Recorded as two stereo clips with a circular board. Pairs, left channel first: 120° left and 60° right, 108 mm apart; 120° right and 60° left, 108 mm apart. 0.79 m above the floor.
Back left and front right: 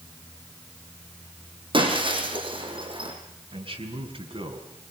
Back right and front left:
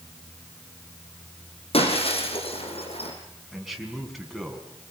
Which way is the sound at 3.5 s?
30° right.